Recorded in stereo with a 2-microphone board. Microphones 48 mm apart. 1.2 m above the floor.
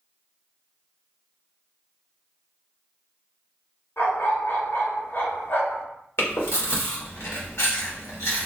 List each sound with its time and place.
4.0 s a dog barking: 60° left (ahead or behind), 2 m
6.2 s chewing: 70° left (ahead or behind), 1.4 m